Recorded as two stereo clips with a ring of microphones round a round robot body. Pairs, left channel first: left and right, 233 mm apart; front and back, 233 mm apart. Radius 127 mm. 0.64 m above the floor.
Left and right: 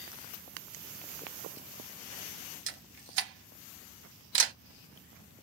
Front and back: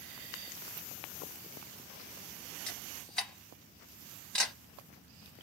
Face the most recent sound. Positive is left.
turn(degrees=-85)